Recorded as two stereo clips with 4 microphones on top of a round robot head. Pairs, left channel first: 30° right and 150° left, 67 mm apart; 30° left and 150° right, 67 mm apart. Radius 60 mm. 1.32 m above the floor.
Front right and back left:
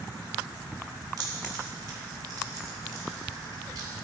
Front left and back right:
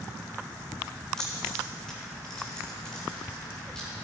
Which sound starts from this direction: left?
Keys jangling, at 1.2 s.